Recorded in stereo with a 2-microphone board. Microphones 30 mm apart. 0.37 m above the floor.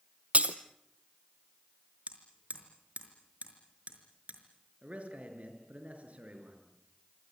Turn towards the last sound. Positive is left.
turn(degrees=-60)  # may be behind; listen again after turning